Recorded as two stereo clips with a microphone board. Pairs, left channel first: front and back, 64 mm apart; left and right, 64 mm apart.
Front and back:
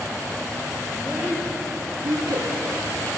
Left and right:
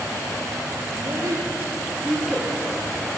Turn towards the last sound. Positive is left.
turn(degrees=170)